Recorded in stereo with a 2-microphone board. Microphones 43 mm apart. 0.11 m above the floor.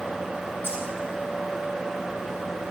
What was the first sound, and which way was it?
Keys jangling, 55° left (ahead or behind).